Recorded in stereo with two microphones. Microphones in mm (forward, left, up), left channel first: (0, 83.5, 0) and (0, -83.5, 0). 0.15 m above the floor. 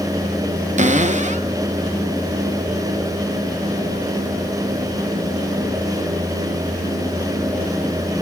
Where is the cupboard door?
45° right (ahead or behind), 0.9 m.